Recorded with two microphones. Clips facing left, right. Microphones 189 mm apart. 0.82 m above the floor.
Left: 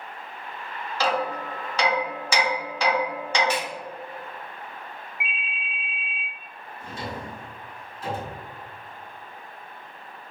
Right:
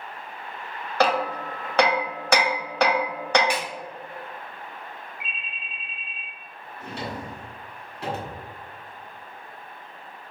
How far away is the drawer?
About 0.8 m.